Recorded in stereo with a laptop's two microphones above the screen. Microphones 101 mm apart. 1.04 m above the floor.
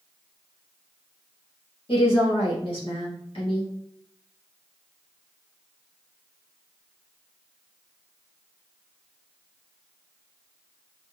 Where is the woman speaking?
60° left (ahead or behind), 1.8 m.